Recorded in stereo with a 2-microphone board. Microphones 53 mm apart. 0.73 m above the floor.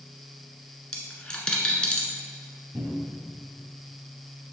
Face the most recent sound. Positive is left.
turn(degrees=-75)  # may be behind; listen again after turning